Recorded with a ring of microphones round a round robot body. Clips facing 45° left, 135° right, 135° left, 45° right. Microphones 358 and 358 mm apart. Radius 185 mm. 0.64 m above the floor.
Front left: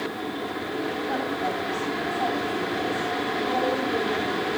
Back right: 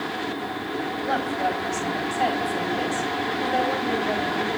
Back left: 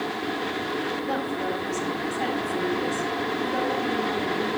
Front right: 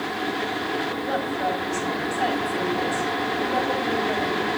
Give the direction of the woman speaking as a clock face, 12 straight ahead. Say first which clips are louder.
Back right 1 dB, front right 1 dB; 4 o'clock.